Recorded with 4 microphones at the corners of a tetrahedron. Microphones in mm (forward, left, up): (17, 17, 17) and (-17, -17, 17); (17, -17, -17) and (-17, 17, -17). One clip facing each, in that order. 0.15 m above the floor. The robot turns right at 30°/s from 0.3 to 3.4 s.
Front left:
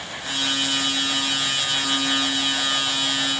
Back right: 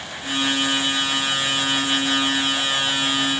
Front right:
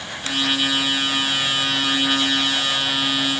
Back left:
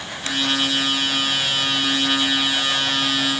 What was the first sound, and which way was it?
Only background noise.